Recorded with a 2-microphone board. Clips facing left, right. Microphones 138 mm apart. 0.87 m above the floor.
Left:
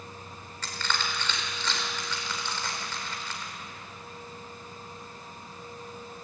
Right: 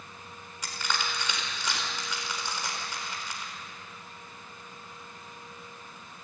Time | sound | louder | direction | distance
0.6 | crushing | left 1 dB | 10° right (ahead or behind) | 4 m